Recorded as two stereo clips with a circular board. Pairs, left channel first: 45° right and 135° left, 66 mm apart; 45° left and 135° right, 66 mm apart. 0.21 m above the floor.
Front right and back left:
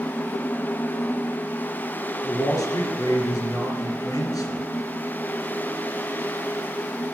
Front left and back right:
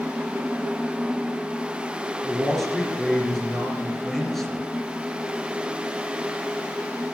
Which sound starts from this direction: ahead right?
A man speaking, at 2.2 s.